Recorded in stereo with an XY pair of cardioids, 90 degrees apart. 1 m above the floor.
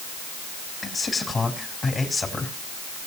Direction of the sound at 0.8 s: 30° left.